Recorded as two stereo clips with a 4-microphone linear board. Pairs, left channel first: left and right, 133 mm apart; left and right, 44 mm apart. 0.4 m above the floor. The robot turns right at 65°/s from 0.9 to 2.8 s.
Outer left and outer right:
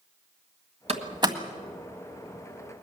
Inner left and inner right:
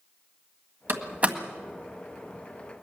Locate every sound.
0.9 s a door slam: 55° right (ahead or behind), 1.7 m; by 1.4 s 25° right (ahead or behind), 1.7 m